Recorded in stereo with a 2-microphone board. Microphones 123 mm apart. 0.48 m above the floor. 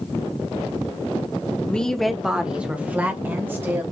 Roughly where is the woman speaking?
Centre.